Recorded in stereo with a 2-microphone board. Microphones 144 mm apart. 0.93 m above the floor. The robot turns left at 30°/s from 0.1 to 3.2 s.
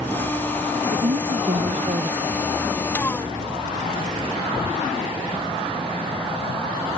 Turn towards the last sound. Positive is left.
turn(degrees=-170)